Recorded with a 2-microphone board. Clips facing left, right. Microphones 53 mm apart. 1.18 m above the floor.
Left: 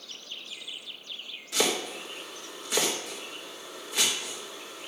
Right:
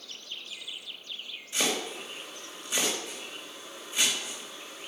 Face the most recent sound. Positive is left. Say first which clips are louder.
# left 2 dB
turn(degrees=90)